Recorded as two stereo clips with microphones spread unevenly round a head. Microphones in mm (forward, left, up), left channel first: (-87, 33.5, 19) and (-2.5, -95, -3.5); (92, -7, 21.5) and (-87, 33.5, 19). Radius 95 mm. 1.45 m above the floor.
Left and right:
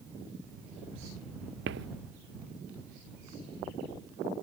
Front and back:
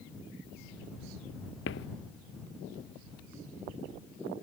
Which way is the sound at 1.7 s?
45° right.